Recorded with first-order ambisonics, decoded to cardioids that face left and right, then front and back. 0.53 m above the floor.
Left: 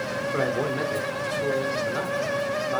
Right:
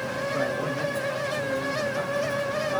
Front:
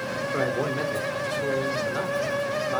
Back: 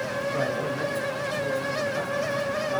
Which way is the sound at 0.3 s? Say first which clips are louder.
Left 3 dB, front 4 dB; 50° left.